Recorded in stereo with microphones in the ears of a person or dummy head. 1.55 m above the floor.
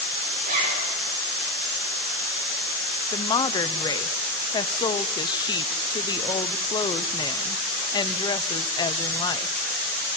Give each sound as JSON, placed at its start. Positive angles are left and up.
{"t": 0.4, "sound": "a zipper", "side_deg": -45, "distance_m": 8.5}
{"t": 3.1, "sound": "a woman speaking", "side_deg": 25, "distance_m": 0.7}